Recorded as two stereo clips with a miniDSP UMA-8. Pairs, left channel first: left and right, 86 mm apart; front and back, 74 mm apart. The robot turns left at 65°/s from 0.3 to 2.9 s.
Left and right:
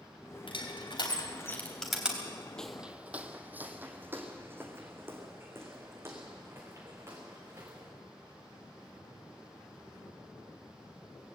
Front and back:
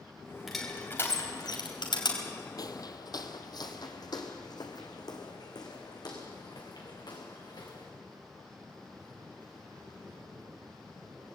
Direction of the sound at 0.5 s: 95° left.